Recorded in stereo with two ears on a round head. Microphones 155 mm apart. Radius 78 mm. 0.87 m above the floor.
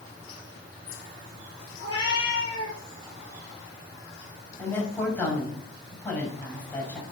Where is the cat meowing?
25° left (ahead or behind), 5 m.